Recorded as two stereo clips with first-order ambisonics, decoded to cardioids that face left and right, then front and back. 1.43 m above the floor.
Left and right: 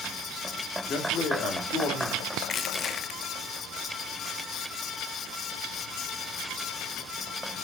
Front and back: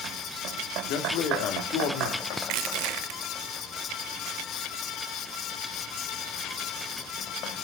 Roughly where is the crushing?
Behind left.